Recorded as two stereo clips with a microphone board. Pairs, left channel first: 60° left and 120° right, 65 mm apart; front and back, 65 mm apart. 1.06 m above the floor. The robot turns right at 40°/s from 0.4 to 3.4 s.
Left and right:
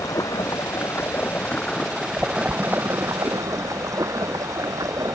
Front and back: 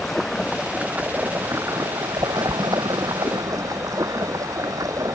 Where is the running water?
90° left; by 5.1 s 150° right.